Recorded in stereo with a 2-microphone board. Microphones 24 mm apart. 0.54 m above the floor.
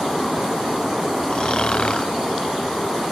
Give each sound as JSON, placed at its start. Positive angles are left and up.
{"t": 1.3, "sound": "snoring", "side_deg": 40, "distance_m": 0.8}